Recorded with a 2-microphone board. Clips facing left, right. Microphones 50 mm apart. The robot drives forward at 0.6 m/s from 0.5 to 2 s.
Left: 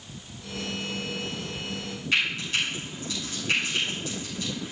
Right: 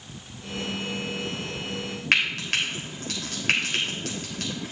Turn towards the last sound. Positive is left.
turn(degrees=-65)  # may be behind; listen again after turning